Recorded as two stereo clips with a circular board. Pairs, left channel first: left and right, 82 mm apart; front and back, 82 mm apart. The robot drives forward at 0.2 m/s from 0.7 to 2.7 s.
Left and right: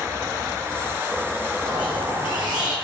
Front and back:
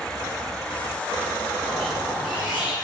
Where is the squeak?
95° right, 0.9 m; by 2.8 s 105° right, 0.9 m.